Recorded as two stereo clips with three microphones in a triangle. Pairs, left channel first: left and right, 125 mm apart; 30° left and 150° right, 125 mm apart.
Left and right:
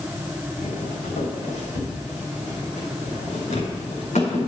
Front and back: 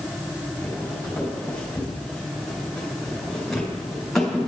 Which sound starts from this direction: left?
Footsteps, at 0.6 s.